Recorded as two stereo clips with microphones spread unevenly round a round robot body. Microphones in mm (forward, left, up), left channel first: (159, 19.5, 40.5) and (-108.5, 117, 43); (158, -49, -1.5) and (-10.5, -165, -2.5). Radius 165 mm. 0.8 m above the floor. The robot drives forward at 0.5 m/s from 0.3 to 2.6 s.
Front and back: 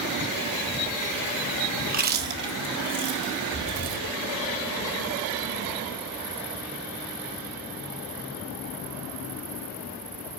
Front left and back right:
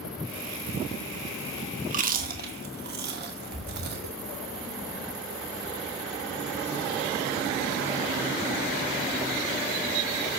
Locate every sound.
1.9 s chewing: 160° right, 1.0 m; by 4.1 s 165° right, 1.3 m